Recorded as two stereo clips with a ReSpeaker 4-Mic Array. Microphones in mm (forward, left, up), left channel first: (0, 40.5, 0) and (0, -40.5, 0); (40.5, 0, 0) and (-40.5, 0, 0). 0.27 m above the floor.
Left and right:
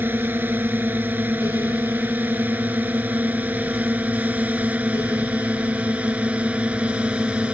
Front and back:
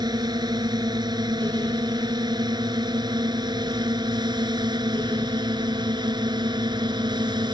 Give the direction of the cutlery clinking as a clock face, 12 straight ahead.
I don't hear cutlery clinking.